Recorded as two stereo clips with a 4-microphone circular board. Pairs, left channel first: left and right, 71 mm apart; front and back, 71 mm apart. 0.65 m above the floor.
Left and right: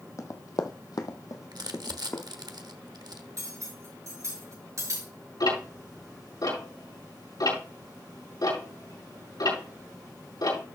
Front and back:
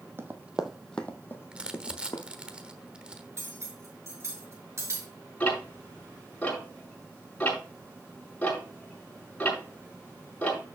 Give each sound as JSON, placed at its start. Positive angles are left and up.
{"t": 0.2, "sound": "running footsteps", "azimuth_deg": 130, "distance_m": 1.4}
{"t": 1.5, "sound": "crumpling", "azimuth_deg": -105, "distance_m": 1.0}
{"t": 3.4, "sound": "cutlery clinking", "azimuth_deg": -130, "distance_m": 6.0}
{"t": 5.4, "sound": "ticking", "azimuth_deg": 70, "distance_m": 5.0}